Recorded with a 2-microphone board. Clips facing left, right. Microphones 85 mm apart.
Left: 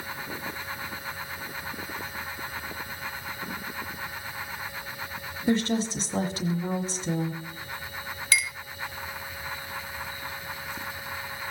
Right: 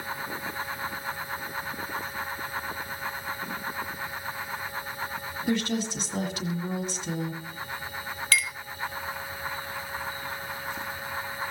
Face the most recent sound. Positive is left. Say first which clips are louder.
# right 1 dB
turn(degrees=20)  # may be behind; listen again after turning